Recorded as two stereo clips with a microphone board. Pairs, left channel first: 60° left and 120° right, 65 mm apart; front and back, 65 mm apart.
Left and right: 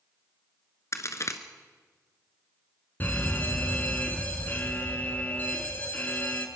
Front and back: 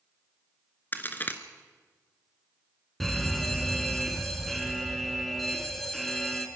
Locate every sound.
0.9 s a crack: 50° left, 1.4 m
3.0 s a fire alarm: 85° left, 2.5 m